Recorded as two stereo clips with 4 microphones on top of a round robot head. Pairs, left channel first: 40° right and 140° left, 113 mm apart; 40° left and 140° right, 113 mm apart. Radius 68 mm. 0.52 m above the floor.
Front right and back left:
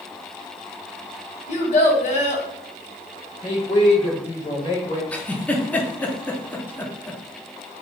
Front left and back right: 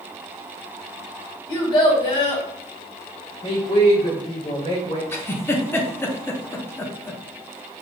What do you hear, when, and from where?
1.5 s a child speaking: 10° right, 1.7 m
3.4 s a woman speaking: 5° left, 1.9 m
5.1 s a giggle: 15° left, 0.7 m